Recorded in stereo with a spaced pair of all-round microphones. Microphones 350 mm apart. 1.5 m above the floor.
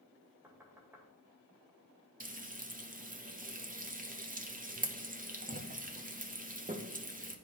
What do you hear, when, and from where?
0.4 s knocking: 5° right (ahead or behind), 1.6 m
2.2 s frying: 25° right (ahead or behind), 0.7 m